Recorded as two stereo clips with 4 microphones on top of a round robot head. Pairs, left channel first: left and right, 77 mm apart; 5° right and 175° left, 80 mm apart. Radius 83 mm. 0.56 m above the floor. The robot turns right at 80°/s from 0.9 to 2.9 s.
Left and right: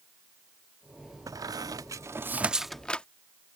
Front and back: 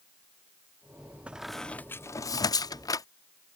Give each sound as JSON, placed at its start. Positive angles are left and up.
{"t": 1.3, "sound": "a squeak", "azimuth_deg": -115}